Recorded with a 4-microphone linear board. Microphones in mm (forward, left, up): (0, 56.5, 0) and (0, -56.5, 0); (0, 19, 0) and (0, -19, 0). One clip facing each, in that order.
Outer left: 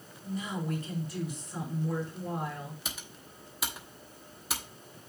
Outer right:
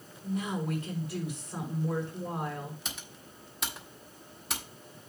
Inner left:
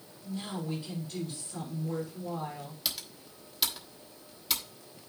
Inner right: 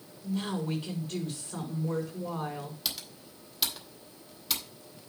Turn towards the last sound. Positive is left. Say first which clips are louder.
# even, even
turn(degrees=5)  # may be behind; listen again after turning